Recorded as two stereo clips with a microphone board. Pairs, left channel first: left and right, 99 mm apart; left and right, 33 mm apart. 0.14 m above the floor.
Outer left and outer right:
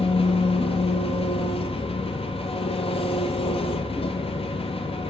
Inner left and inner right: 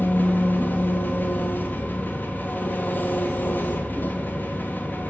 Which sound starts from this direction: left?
An engine running, at 0.0 s.